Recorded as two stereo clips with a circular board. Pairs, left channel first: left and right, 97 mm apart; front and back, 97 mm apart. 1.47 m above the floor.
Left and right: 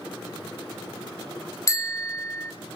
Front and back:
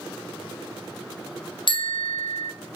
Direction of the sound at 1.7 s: 35° left.